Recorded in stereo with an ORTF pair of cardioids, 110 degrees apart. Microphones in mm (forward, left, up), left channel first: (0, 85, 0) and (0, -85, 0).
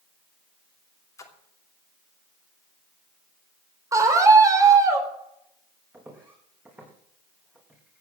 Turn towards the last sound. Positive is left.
turn(degrees=-10)